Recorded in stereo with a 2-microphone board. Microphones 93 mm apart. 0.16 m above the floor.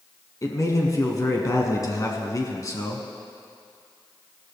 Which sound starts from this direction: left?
A man speaking, at 0.4 s.